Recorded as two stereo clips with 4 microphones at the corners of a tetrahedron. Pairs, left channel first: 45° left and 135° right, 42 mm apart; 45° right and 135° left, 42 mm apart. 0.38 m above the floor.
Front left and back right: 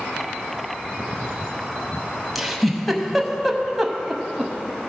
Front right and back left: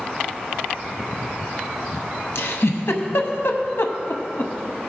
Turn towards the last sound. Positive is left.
turn(degrees=-45)